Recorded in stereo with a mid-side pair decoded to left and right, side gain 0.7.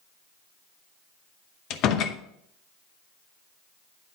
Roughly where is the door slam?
Ahead left.